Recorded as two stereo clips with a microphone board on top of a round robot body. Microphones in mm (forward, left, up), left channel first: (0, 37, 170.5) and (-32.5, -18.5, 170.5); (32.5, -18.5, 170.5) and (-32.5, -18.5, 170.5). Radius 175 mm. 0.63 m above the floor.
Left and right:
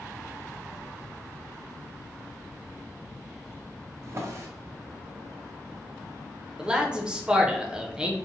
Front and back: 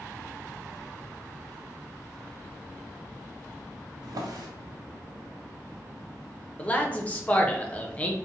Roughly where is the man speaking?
Ahead right.